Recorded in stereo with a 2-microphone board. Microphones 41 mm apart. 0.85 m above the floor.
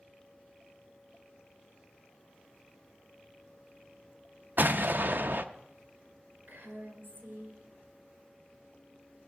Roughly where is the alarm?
No alarm in this recording.